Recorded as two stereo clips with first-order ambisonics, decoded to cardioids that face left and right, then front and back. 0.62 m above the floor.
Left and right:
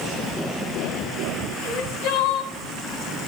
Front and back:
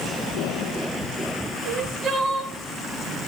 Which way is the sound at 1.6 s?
95° left.